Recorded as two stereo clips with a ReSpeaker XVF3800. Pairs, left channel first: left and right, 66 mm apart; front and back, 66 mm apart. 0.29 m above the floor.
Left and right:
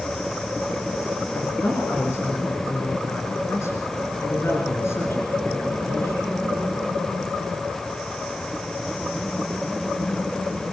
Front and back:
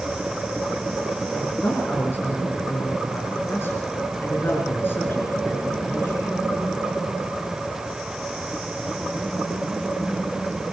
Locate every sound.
1.3 s a woman speaking: 50° left, 4 m